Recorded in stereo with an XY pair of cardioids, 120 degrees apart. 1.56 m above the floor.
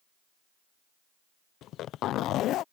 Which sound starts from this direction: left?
A zipper, at 1.6 s.